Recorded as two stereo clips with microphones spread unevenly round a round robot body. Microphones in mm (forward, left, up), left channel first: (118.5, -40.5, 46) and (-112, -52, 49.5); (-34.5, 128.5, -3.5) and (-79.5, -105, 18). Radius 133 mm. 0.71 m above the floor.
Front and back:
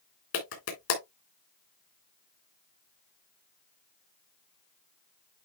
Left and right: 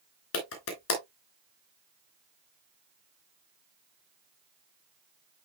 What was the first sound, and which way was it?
A clap, 40° left.